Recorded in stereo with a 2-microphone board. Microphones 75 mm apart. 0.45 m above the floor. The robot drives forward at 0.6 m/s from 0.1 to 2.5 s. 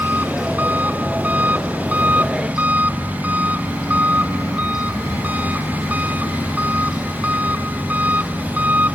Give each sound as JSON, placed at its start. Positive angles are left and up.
{"t": 0.0, "sound": "an engine running", "side_deg": -20}